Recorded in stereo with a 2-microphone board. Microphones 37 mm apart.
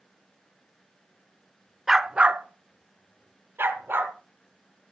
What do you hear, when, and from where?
1.9 s a dog barking: 5° right (ahead or behind), 0.6 m; by 4.1 s 70° right (ahead or behind), 1.7 m